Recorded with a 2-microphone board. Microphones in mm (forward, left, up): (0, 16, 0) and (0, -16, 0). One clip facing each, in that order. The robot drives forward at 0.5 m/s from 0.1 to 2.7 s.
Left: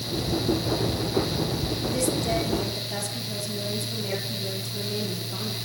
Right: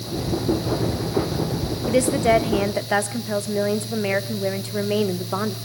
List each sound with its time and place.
1.9 s a woman speaking: 50° right (ahead or behind), 2 m; by 5.5 s 55° right (ahead or behind), 1.9 m